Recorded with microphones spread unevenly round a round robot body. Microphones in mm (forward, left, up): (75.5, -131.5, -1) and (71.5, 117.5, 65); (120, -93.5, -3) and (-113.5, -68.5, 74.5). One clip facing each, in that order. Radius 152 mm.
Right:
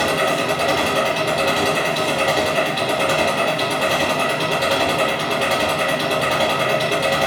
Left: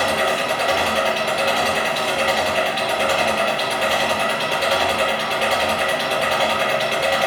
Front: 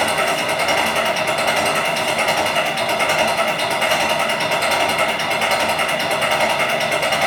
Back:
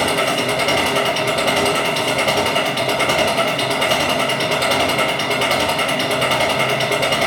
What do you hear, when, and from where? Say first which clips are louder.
0.0 s an engine running: right 2 dB, back 2 dB; 140° right, 3.5 m